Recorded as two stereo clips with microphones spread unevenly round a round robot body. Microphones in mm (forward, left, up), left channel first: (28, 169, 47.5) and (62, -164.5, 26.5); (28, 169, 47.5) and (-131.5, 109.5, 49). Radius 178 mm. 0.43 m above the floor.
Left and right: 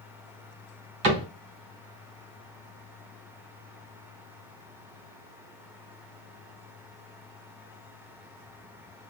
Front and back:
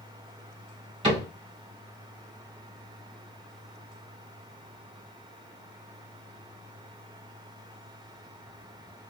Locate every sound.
1.0 s a cupboard door: 95° right, 1.3 m